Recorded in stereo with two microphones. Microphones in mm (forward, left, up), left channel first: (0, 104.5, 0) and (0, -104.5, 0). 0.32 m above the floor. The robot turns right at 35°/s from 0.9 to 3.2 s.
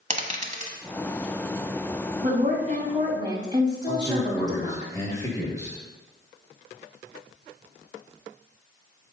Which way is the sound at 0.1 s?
35° right (ahead or behind).